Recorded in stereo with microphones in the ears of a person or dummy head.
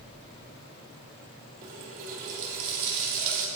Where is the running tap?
45° right (ahead or behind), 1.7 m.